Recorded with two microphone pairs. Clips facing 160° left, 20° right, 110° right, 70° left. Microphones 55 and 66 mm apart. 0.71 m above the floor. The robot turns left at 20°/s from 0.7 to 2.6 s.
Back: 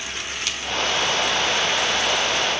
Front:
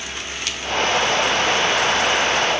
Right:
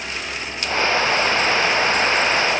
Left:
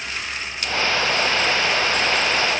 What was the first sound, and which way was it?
Only background noise.